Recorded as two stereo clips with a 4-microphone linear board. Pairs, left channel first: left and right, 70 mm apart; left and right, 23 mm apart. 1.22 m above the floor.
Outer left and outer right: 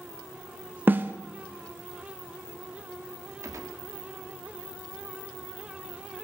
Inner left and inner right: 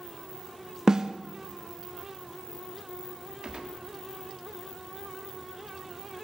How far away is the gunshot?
About 1.1 m.